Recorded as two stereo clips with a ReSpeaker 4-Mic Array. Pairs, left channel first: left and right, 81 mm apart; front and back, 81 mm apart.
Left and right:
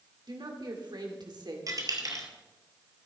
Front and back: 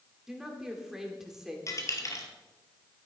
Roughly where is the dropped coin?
Ahead right.